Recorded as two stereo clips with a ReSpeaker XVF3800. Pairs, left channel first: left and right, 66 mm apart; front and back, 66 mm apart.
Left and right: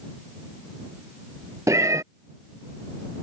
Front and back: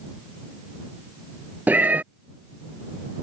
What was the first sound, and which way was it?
A cat meowing, 120° right.